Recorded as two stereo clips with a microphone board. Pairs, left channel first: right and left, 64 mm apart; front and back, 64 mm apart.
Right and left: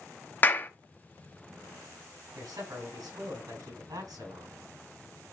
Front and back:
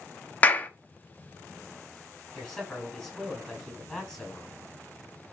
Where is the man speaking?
75° left, 6.5 m.